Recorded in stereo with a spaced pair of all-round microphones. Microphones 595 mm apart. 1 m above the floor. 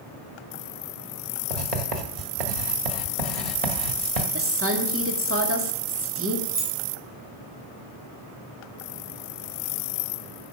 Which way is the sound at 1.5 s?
65° right (ahead or behind).